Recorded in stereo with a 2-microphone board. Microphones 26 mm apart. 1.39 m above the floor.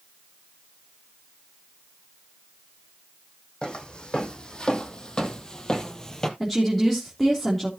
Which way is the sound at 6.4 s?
5° left (ahead or behind).